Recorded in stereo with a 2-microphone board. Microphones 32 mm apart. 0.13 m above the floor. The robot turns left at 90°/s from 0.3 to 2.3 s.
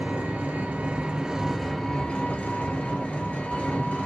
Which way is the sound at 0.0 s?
65° right.